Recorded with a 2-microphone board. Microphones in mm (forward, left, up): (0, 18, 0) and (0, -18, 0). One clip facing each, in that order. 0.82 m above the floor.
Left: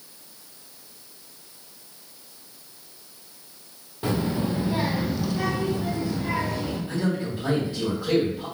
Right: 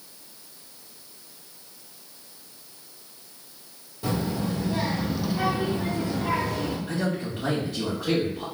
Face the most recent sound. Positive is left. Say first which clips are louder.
# left 1 dB
turn(degrees=-55)  # may be behind; listen again after turning